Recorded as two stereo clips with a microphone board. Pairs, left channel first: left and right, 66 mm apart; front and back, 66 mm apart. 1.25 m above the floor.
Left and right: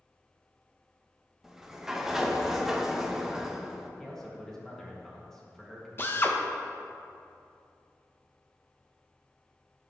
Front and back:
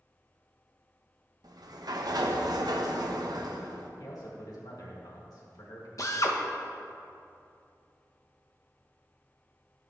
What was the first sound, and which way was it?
A sliding door, 175° right.